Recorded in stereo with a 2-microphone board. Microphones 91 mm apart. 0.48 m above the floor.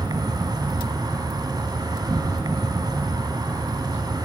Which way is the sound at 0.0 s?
45° right (ahead or behind).